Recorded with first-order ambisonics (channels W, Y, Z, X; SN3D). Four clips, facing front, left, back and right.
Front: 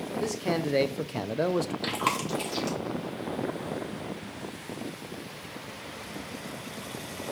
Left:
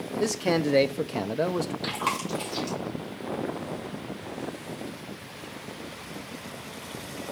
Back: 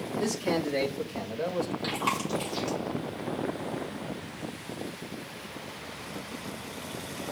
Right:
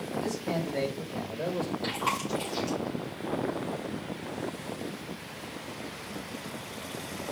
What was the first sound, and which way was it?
A man speaking, 95° left.